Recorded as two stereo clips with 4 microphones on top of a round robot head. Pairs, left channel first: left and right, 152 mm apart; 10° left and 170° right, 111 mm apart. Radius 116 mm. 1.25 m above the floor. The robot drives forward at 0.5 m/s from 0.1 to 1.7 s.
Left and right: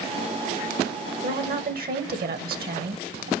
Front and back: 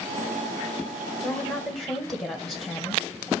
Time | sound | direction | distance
1.2 | a woman speaking | 75° right | 1.6 m